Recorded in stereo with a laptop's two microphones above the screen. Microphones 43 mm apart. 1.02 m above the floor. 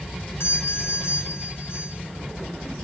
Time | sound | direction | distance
0.4 | a doorbell | 80° left | 6.5 m